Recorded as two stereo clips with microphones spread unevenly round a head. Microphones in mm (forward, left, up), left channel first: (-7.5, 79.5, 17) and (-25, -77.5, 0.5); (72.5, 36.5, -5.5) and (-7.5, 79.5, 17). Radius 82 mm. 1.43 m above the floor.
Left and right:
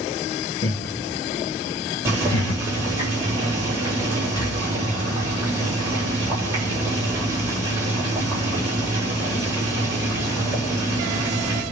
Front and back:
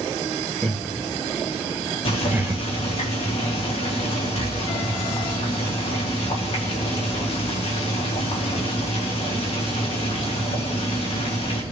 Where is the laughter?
60° left, 2 m; by 2.6 s 95° left, 1.0 m.